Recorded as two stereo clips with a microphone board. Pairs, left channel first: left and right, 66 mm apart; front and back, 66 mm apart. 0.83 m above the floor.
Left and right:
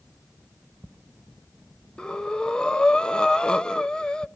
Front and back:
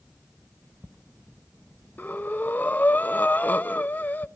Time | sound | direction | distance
2.0 | breathing | 25° left | 0.8 m